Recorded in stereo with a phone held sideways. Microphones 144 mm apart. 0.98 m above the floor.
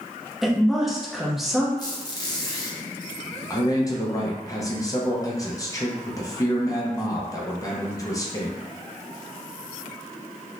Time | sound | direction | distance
0.4 | a woman speaking | centre (ahead or behind) | 0.7 m
1.8 | a squeak | 25° left (ahead or behind) | 0.8 m
3.5 | a man speaking | 25° left (ahead or behind) | 0.5 m